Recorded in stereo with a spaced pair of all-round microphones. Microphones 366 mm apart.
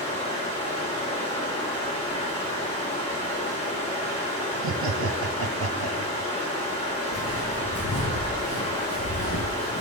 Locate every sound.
0.0 s running water: 20° left (ahead or behind), 3 m
4.5 s laughter: 75° right (ahead or behind), 0.8 m
7.1 s footsteps: 55° left (ahead or behind), 4.5 m; by 9.8 s 35° left (ahead or behind), 3.5 m